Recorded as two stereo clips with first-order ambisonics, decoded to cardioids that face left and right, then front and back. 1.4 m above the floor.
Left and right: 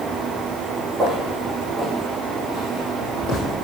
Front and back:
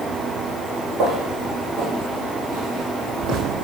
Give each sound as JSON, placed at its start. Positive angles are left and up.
{"t": 1.0, "sound": "footsteps", "azimuth_deg": -160, "distance_m": 2.5}